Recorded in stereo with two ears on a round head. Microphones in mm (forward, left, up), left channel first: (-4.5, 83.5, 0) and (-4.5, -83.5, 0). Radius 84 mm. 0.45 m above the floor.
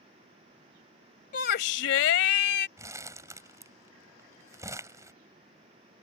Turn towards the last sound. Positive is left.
turn(degrees=-15)  # may be behind; listen again after turning